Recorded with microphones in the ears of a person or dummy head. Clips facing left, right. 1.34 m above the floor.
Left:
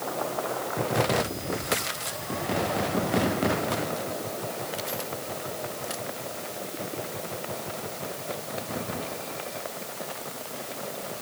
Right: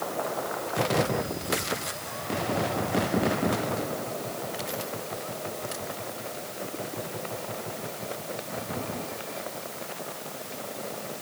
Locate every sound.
Only background noise.